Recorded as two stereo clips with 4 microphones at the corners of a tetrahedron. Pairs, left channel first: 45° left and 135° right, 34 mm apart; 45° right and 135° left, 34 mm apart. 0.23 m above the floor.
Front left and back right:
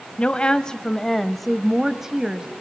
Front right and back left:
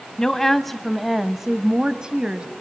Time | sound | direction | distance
0.2 | a woman speaking | 15° left | 1.2 m